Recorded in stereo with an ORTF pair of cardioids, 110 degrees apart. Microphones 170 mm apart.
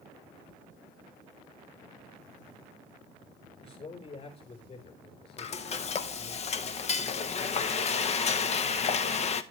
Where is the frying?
40° left, 0.9 m.